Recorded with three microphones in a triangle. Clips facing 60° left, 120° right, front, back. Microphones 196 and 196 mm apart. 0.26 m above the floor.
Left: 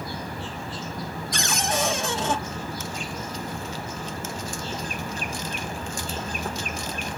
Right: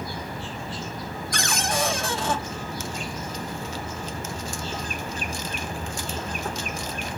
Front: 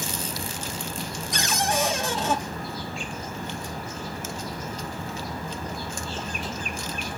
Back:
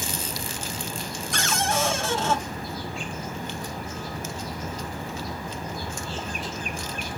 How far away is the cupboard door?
About 0.9 m.